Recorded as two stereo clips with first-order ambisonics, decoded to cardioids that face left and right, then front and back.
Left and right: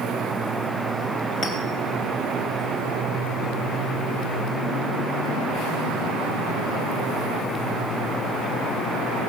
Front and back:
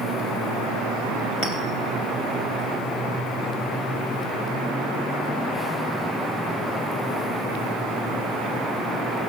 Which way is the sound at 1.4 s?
35° left.